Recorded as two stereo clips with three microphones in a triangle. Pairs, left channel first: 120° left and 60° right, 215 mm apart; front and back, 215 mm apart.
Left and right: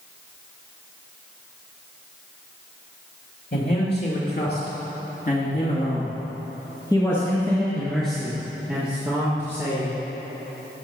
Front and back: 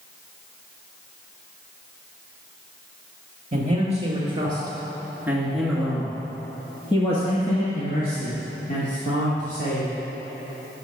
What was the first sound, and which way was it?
A man speaking, 135° left.